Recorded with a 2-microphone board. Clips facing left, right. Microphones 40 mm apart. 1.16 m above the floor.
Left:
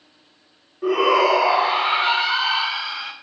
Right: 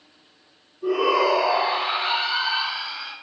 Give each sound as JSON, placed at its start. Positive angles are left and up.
{"t": 0.8, "sound": "a shout", "side_deg": 70, "distance_m": 0.7}